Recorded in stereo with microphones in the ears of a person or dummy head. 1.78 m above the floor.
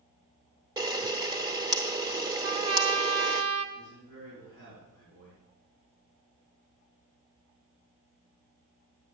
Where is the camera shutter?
20° right (ahead or behind), 0.8 m.